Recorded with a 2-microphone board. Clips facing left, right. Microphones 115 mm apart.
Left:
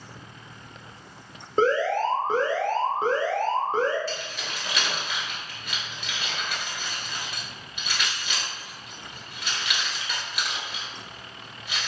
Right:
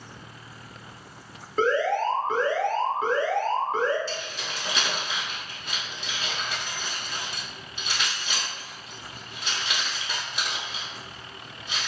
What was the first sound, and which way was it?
An alarm, 30° left (ahead or behind).